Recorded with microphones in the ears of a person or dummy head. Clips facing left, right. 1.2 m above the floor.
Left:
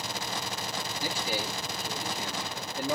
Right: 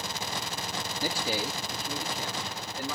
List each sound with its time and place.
1.0 s a man speaking: 35° right (ahead or behind), 0.5 m; by 3.0 s 15° left (ahead or behind), 1.1 m